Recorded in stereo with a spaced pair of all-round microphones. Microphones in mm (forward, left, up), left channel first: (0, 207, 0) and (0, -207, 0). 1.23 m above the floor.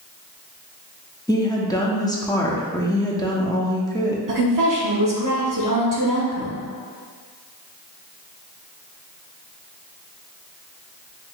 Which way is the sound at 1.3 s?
10° left (ahead or behind).